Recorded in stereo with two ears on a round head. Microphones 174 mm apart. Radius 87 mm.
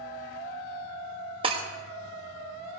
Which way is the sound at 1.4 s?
25° right (ahead or behind).